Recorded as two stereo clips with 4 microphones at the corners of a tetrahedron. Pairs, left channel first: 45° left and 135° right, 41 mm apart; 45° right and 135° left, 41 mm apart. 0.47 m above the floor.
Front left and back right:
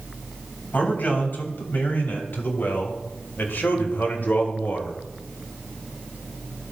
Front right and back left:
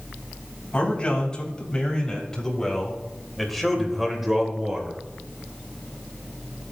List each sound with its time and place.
0.7 s a man speaking: 15° left, 3.5 m; by 5.0 s 70° left, 1.8 m